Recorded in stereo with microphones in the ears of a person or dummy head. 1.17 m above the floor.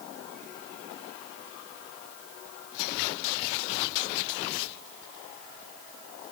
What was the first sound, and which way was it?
Only background noise.